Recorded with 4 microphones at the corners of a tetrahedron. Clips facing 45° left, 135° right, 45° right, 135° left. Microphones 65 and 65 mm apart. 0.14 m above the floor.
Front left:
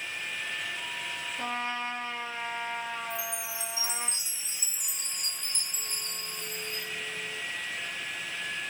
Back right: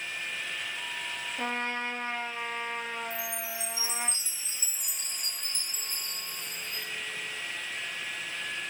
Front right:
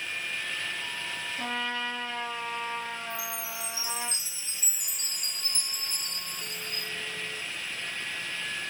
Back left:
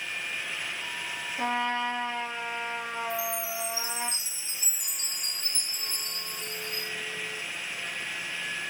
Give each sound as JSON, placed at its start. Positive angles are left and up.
{"t": 1.4, "sound": "a trumpet", "azimuth_deg": -170, "distance_m": 3.0}
{"t": 3.1, "sound": "a chime", "azimuth_deg": -85, "distance_m": 4.5}